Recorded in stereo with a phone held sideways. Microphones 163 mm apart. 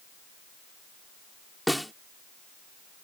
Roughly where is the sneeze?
No sneeze in this recording.